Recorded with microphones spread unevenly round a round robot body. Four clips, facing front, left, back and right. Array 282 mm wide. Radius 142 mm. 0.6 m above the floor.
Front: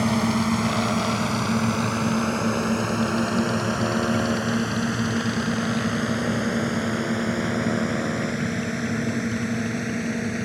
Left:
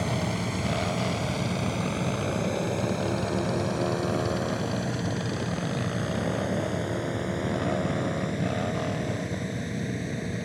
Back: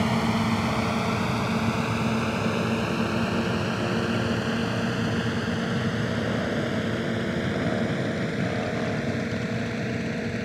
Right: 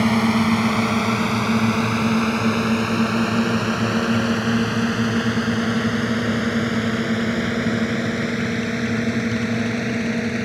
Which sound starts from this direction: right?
A drone, at 0.0 s.